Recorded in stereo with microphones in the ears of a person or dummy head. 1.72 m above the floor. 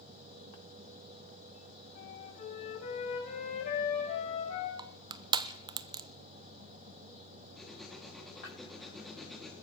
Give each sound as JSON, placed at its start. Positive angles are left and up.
{"t": 1.9, "sound": "a flute", "side_deg": 40, "distance_m": 6.0}
{"t": 4.8, "sound": "crushing", "side_deg": -25, "distance_m": 0.7}
{"t": 7.5, "sound": "writing", "side_deg": 0, "distance_m": 3.5}